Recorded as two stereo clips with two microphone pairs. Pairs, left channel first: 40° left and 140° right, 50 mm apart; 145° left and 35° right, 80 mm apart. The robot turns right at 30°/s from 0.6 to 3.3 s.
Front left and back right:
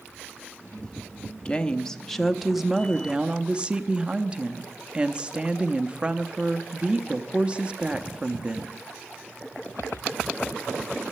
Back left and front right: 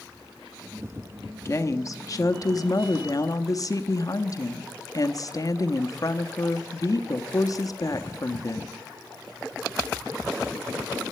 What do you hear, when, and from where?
1.4 s a woman speaking: 105° left, 0.8 m; by 8.9 s 160° left, 0.8 m